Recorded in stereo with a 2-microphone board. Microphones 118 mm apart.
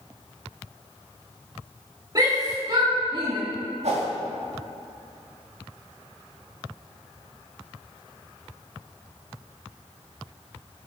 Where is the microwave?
No microwave in this recording.